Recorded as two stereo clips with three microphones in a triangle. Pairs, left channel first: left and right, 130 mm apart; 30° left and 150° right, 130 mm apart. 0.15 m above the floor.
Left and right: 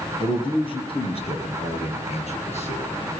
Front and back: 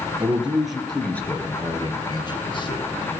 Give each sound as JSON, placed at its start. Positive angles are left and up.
{"t": 0.2, "sound": "a man speaking", "azimuth_deg": 135, "distance_m": 3.0}